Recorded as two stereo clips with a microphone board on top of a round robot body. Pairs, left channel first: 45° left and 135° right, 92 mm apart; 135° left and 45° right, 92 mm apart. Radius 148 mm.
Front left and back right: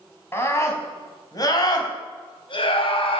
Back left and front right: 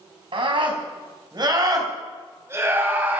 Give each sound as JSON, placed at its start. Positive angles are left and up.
{"t": 0.3, "sound": "a scream", "azimuth_deg": -20, "distance_m": 4.5}